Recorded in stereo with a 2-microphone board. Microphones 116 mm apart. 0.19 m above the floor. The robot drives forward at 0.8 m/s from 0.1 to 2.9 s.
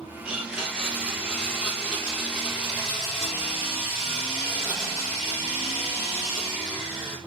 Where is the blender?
10° right (ahead or behind), 4.5 m; by 7.2 s 5° right (ahead or behind), 6.5 m.